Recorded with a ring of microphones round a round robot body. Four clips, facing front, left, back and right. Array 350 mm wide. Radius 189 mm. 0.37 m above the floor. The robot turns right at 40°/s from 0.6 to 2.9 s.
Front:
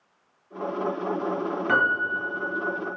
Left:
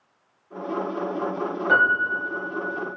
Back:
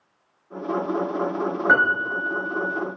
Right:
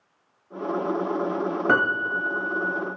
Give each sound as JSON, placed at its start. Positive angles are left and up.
{"t": 1.7, "sound": "a piano", "azimuth_deg": -105, "distance_m": 2.5}